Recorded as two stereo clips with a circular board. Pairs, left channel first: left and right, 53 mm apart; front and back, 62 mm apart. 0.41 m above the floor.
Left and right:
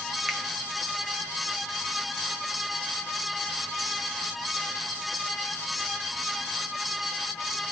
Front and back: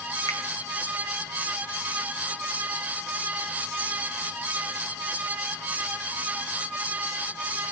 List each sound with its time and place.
0.3 s a finger snap: 5° right, 2.5 m